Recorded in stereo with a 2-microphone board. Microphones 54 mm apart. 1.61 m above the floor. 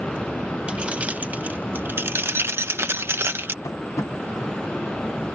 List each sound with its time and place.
0.7 s keys jangling: 25° right (ahead or behind); by 3.5 s 45° right (ahead or behind)
3.6 s tapping: 85° left